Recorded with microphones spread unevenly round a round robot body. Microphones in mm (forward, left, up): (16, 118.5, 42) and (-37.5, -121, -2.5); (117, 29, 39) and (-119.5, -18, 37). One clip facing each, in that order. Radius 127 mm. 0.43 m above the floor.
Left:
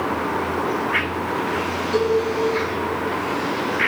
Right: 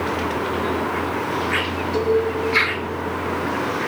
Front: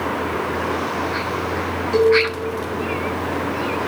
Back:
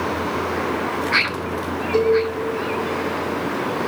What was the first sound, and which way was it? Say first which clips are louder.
A cowbell: even, front 2 dB; 65° left.